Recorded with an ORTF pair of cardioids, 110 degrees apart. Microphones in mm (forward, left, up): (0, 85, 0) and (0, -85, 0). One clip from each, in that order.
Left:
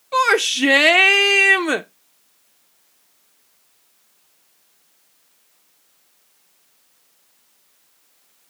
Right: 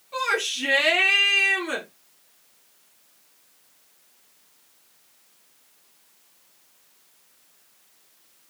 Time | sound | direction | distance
0.1 | a shout | 55° left | 0.5 m